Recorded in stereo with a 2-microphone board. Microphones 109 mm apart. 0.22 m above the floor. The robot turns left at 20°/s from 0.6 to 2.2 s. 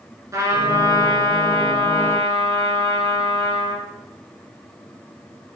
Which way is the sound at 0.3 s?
30° right.